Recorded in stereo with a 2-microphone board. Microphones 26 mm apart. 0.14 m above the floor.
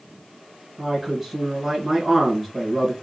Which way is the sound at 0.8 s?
15° right (ahead or behind).